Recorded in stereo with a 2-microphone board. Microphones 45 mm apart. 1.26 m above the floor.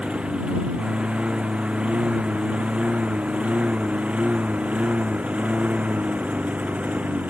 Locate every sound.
0.0 s a lawn mower: 25° right (ahead or behind); by 7.3 s 35° right (ahead or behind)